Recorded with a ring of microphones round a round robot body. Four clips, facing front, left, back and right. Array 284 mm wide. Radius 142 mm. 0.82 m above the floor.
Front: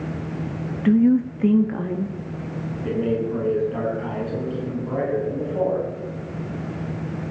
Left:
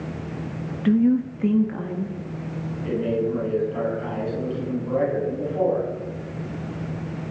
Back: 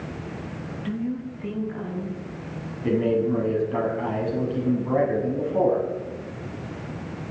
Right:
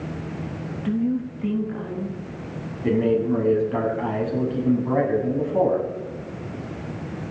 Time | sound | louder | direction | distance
0.8 | a woman speaking | left 5 dB, front 13 dB | 30° left | 0.7 m
2.8 | a man speaking | right 4 dB, back 2 dB | 115° right | 7 m